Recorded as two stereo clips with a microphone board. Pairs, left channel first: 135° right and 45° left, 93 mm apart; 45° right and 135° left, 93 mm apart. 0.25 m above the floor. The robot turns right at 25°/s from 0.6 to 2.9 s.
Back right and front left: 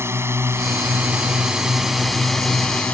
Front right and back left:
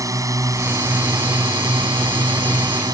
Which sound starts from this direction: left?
A drone, at 0.0 s.